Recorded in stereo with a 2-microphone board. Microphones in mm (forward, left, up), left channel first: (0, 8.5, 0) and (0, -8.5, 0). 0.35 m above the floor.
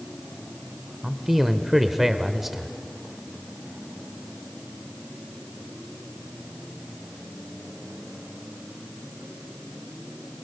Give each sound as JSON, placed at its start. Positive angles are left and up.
{"t": 1.0, "sound": "a man speaking", "side_deg": -15, "distance_m": 1.0}